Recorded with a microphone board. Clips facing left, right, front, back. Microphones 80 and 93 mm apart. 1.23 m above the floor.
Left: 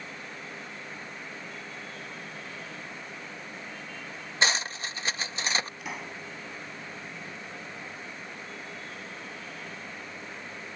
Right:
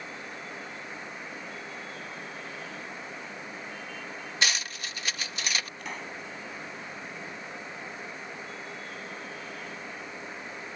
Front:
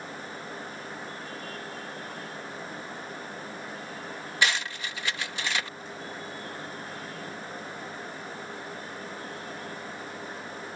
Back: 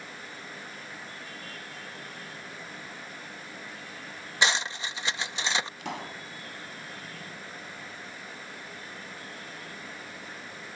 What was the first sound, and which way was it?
Cutlery clinking, 125° left.